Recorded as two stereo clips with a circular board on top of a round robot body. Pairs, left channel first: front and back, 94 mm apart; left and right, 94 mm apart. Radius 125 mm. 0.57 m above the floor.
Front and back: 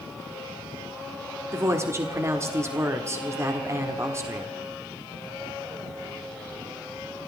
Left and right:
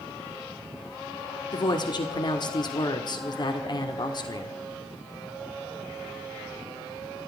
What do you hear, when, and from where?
1.5 s a woman speaking: 125° left, 1.5 m